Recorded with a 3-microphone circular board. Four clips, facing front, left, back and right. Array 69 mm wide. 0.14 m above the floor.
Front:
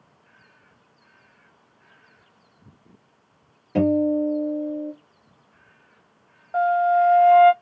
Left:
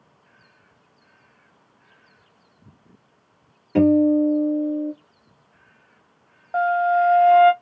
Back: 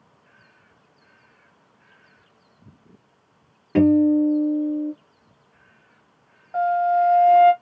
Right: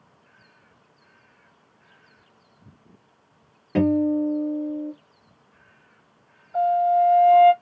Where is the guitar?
145° right, 2.5 m.